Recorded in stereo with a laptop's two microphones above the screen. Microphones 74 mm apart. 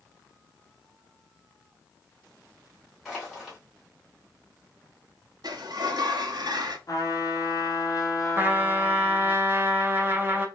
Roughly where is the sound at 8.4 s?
Right.